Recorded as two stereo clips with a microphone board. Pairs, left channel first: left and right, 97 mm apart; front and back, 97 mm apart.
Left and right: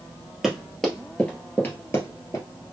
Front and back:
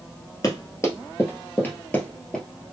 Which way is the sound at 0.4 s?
Straight ahead.